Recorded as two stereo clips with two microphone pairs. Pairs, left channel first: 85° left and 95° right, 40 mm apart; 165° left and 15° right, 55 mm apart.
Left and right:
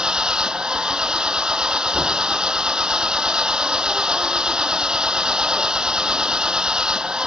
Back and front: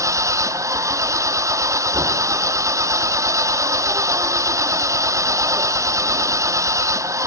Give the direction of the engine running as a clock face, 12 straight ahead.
1 o'clock.